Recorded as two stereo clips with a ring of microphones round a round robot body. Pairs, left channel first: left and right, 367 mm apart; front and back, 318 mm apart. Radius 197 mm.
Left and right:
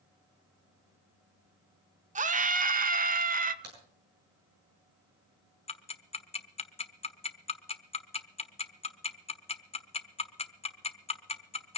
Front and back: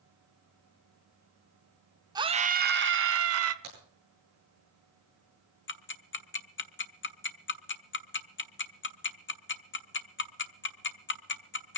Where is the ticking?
25° left, 1.3 m.